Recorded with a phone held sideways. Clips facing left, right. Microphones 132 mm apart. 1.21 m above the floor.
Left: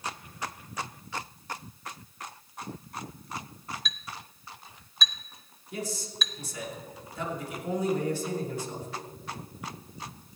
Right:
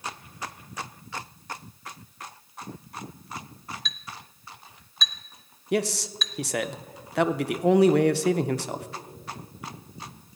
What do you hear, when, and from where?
3.9 s a clink: 5° left (ahead or behind), 0.7 m
5.7 s a man speaking: 80° right, 0.5 m